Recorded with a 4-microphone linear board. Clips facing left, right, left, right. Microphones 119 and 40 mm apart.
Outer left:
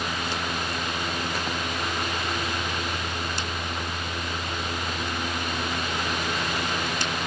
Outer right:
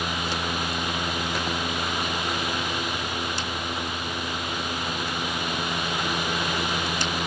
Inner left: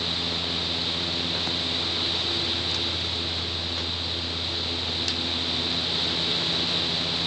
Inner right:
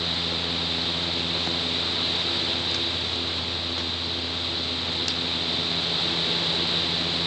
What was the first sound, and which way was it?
Only background noise.